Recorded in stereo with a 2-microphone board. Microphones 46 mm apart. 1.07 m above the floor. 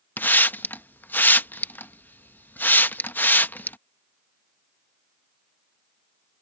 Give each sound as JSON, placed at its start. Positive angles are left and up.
{"t": 0.2, "sound": "a hiss", "side_deg": 45}